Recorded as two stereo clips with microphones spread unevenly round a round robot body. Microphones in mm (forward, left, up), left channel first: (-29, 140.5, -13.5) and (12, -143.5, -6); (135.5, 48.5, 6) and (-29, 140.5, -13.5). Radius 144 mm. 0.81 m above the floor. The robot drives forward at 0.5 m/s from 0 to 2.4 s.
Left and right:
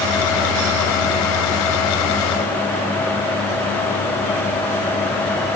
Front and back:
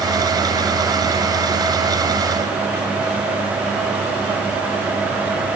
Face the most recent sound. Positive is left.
No sound to turn to.